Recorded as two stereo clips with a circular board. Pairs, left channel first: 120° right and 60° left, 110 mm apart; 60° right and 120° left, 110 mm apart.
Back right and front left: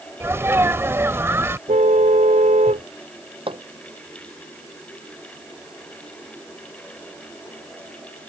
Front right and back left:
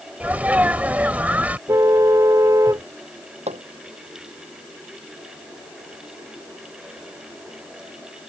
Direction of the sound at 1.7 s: 55° left.